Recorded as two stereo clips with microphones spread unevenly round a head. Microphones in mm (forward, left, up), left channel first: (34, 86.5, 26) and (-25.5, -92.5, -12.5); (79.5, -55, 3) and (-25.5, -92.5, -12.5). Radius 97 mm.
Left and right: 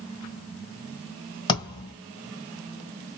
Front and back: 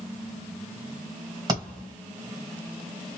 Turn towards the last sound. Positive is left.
turn(degrees=130)